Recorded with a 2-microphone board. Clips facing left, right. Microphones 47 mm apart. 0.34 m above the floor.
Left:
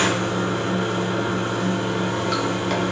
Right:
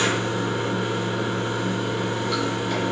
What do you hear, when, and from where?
0.0 s running water: 60° left (ahead or behind), 1.2 m